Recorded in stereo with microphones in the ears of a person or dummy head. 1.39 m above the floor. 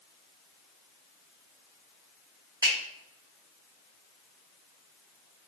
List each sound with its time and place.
2.6 s a finger snap: 15° left (ahead or behind), 1.3 m